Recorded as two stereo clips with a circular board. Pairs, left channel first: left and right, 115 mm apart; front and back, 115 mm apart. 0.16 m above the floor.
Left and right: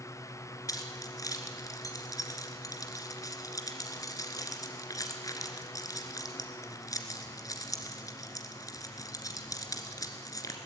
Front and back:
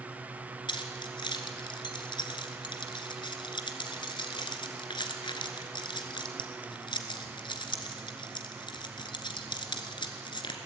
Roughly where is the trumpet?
No trumpet in this recording.